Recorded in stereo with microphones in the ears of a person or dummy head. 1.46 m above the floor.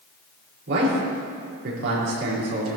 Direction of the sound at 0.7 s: 70° right (ahead or behind).